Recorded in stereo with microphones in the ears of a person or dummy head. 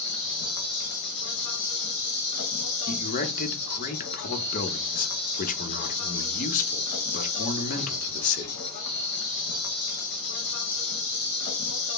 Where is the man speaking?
40° left (ahead or behind), 0.8 m.